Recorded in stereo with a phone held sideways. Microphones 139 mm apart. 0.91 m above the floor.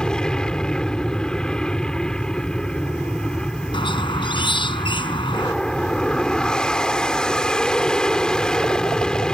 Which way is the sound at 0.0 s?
5° left (ahead or behind).